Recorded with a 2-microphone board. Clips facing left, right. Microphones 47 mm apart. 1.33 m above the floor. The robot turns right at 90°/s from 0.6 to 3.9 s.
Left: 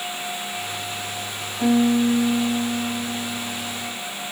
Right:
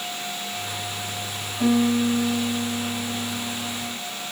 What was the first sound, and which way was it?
A piano, 15° left.